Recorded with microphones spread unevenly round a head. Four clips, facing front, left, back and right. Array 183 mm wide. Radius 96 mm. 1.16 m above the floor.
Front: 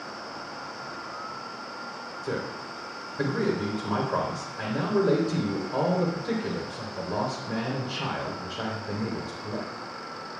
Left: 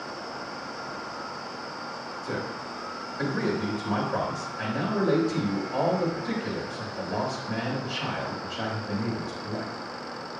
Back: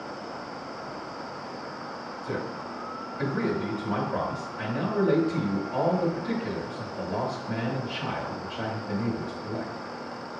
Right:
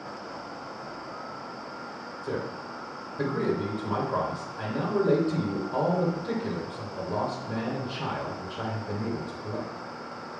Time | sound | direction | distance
2.2 | a man speaking | 25° right | 3.5 m